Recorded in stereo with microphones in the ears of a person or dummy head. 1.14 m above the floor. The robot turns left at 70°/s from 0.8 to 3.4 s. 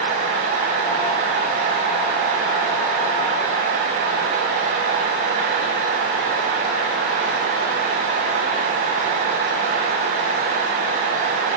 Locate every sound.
Only background noise.